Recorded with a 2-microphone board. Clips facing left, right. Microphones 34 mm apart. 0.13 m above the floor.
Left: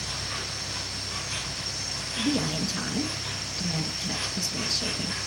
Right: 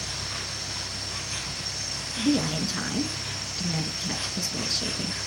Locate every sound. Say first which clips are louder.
0.0 s an insect: even; 20° left (ahead or behind), 1.8 m
2.2 s a woman speaking: right 2 dB; 10° right (ahead or behind), 1.3 m